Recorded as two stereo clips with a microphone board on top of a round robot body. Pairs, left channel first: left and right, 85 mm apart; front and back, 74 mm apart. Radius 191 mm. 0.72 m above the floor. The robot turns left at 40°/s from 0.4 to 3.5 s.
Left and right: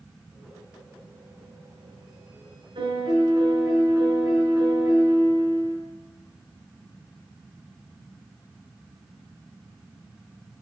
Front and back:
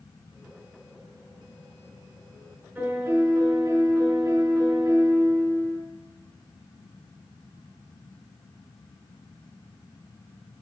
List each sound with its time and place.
2.8 s a piano: 110° right, 8 m; by 5.8 s 140° right, 8 m